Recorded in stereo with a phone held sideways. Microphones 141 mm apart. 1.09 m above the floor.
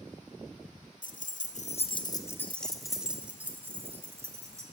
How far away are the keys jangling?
About 0.7 m.